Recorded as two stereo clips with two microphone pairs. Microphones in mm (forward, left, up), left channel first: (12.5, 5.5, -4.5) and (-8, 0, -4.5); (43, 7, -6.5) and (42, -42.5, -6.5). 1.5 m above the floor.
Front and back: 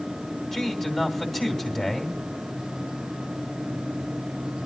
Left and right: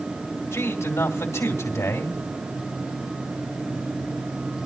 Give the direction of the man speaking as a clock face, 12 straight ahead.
9 o'clock.